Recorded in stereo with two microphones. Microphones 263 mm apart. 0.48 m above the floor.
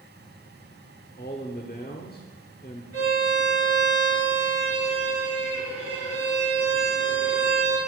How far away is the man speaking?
About 1.1 m.